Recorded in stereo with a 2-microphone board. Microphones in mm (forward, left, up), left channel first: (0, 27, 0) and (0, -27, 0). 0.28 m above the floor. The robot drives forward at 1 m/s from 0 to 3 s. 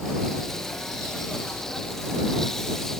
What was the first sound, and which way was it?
Only background noise.